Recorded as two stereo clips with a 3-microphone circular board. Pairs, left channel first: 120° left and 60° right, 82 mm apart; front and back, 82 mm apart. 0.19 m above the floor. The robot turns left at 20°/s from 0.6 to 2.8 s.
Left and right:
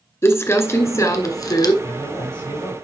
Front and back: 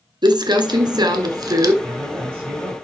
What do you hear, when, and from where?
0.2 s crumpling: 170° left, 1.3 m; by 1.7 s 150° left, 1.3 m
1.8 s a man speaking: 130° left, 6 m; by 2.9 s 110° left, 6 m